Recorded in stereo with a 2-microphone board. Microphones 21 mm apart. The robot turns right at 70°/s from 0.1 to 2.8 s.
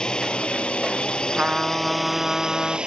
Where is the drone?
55° left; by 2.9 s 115° right.